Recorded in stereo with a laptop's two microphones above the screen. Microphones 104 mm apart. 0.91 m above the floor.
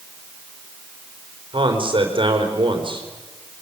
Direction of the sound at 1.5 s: 55° right (ahead or behind).